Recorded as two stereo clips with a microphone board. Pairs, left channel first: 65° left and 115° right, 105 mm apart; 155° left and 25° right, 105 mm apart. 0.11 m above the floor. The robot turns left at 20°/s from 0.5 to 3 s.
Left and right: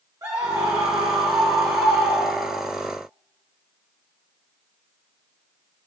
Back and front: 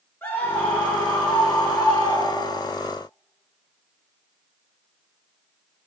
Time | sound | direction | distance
0.2 | a scream | 145° right | 1.4 m